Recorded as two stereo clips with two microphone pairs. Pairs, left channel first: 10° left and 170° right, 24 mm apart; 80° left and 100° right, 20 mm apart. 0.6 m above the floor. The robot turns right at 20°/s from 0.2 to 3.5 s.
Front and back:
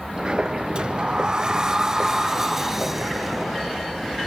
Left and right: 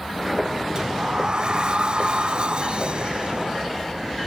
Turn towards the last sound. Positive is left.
turn(degrees=-85)